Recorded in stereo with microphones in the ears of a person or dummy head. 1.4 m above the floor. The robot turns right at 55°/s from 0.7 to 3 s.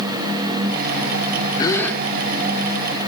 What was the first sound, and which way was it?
A gasp, 20° left (ahead or behind).